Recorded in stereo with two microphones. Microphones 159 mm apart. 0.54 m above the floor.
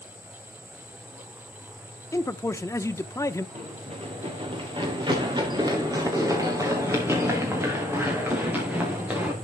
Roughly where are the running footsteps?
Right.